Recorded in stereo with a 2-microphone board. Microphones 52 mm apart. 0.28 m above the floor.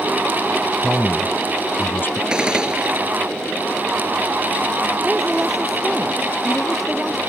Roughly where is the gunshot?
Centre.